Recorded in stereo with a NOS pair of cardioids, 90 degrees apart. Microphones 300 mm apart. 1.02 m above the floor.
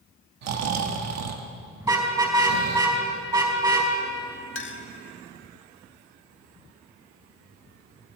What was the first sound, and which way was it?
Snoring, 60° right.